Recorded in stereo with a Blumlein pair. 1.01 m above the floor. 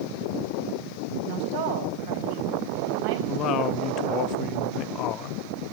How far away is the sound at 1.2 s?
About 4.5 m.